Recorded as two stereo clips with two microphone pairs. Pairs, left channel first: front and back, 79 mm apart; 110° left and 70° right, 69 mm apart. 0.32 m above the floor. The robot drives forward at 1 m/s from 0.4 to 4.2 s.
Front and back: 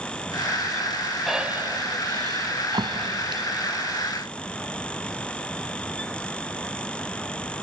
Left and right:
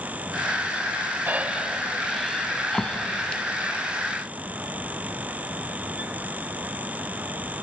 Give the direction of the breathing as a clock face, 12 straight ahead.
3 o'clock.